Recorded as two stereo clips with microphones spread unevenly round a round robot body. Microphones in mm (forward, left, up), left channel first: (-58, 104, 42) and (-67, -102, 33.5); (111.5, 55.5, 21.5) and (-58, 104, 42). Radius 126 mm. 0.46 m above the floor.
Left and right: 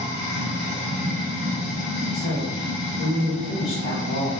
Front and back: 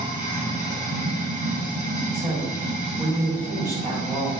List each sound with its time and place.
0.0 s running water: 115° left, 1.9 m
2.1 s a woman speaking: 90° left, 1.7 m